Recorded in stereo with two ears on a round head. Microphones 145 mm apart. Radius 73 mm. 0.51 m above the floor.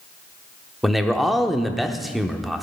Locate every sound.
0.8 s a man speaking: centre (ahead or behind), 0.8 m